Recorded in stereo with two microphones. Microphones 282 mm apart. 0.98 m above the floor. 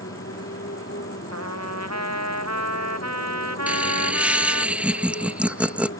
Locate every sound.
0.0 s a motorcycle: 45° left (ahead or behind)
1.3 s a trumpet: 65° right (ahead or behind)
3.7 s laughter: 5° right (ahead or behind)